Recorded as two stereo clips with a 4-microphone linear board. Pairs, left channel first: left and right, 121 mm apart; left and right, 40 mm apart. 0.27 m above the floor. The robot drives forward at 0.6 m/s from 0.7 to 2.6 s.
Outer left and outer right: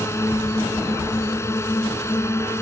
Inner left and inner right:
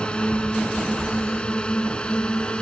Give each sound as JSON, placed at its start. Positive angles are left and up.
{"t": 0.0, "sound": "a drone", "side_deg": 25}